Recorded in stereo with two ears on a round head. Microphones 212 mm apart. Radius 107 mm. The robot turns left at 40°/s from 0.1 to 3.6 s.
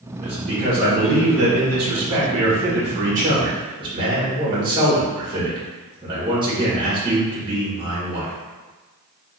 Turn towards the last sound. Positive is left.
turn(degrees=-160)